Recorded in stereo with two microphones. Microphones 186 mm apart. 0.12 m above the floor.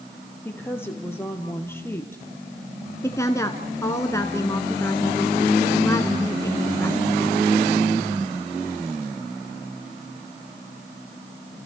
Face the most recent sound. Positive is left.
turn(degrees=15)  # may be behind; listen again after turning